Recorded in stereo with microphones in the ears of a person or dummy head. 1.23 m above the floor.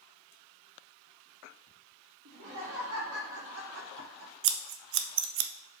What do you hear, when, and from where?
2.2 s laughter: 80° right, 2.5 m
4.4 s scissors: 70° right (ahead or behind), 0.6 m